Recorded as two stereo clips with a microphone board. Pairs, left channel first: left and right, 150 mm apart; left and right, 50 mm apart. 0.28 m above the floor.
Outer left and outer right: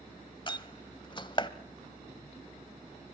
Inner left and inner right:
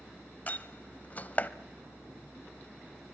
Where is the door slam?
35° left (ahead or behind), 0.8 m.